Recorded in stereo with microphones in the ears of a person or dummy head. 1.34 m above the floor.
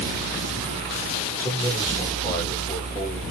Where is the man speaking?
15° left (ahead or behind), 1.9 m.